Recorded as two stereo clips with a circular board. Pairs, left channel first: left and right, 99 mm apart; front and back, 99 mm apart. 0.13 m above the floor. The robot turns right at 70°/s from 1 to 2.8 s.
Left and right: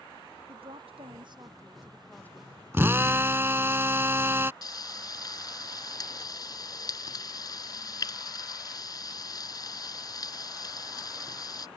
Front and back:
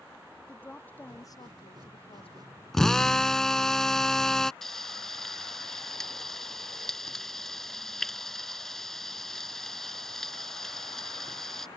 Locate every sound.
0.5 s a woman speaking: 70° right; by 2.6 s 40° left
2.7 s a drill: 80° right
4.6 s frying: 85° left